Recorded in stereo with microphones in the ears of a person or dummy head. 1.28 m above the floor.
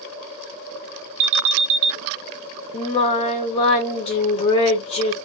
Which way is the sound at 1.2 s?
70° right (ahead or behind).